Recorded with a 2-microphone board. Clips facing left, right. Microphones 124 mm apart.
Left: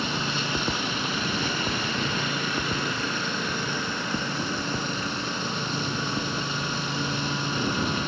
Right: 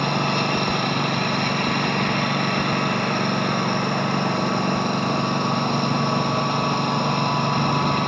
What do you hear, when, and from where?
0.0 s a lawn mower: 60° right (ahead or behind)